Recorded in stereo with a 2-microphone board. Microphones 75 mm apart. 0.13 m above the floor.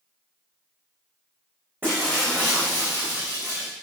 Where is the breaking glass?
25° right (ahead or behind), 6.5 m.